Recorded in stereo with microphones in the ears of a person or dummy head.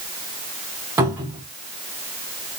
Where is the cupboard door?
20° right (ahead or behind), 1.0 m.